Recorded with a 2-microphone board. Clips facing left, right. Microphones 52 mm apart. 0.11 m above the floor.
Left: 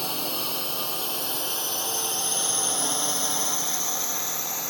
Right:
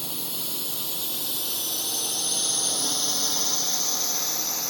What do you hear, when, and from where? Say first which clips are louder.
0.0 s a drone: left 6 dB; 60° left (ahead or behind); by 4.7 s 15° left (ahead or behind)